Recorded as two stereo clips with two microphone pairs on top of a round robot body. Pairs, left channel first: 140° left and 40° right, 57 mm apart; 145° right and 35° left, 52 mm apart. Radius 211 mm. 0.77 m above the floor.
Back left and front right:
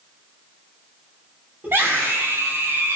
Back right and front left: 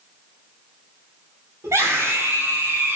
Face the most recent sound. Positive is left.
turn(degrees=-5)